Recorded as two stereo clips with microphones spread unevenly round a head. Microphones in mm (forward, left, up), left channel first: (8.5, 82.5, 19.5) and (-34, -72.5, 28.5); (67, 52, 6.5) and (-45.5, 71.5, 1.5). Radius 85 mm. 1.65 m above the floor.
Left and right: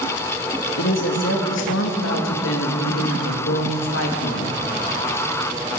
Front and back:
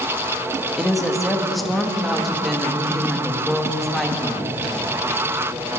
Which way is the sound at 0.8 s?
80° left.